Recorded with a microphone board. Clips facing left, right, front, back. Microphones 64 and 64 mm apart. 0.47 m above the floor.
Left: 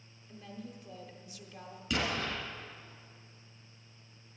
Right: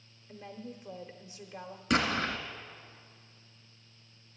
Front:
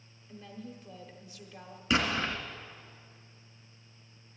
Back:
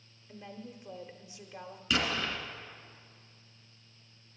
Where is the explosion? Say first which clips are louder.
Right 5 dB, front 3 dB; 60° right, 1.8 m.